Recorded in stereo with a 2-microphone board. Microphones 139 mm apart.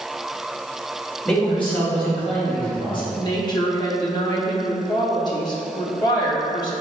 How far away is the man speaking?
About 1.5 m.